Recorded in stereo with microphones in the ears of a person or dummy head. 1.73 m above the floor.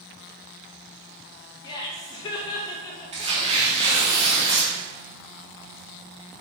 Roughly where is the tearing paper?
Right.